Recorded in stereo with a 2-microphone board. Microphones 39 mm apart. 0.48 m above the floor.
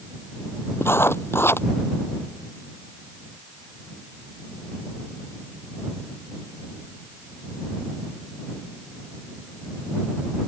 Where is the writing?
85° left.